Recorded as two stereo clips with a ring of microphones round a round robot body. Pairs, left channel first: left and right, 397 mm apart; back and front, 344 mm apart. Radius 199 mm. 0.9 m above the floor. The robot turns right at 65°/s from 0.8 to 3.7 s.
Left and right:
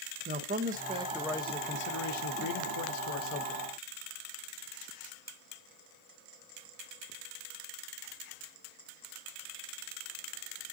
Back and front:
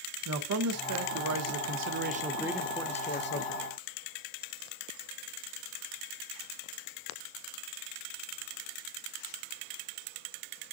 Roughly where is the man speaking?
Ahead right.